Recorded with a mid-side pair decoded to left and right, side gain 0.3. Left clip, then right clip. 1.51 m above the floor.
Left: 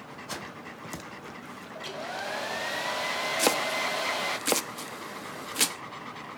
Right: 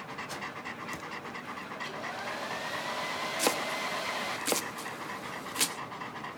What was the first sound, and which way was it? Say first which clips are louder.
A hair dryer: left 4 dB; 55° left.